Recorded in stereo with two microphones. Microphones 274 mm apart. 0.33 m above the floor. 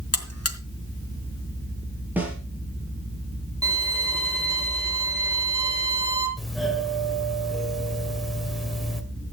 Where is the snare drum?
5° right (ahead or behind), 5 m.